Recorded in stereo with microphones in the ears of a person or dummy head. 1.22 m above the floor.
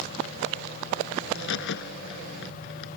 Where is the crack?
65° left (ahead or behind).